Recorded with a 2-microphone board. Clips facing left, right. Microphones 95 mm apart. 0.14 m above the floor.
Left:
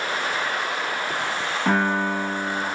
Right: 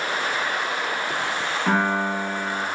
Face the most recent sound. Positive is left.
turn(degrees=45)  # may be behind; listen again after turning